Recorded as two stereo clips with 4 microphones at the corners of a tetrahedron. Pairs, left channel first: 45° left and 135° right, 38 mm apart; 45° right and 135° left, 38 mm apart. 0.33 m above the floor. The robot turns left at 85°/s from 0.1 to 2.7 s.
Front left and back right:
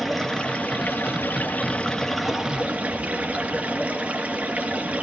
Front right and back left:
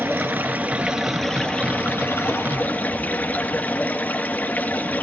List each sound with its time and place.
0.0 s running water: 135° left, 2.5 m; by 5.0 s 85° right, 2.5 m